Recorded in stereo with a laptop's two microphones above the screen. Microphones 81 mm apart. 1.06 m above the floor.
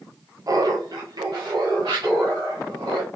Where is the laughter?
40° right (ahead or behind), 0.6 m; by 3.1 s 65° right (ahead or behind), 1.8 m.